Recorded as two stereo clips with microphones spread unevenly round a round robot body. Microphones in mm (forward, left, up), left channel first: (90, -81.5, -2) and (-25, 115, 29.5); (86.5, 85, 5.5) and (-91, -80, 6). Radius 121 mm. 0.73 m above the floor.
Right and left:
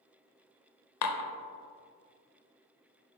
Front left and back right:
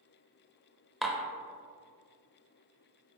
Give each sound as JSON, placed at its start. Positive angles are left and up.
{"t": 1.0, "sound": "dishes clattering", "azimuth_deg": -45, "distance_m": 0.6}